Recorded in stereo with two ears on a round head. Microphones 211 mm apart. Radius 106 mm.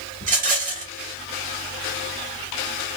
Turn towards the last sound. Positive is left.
turn(degrees=-30)  # may be behind; listen again after turning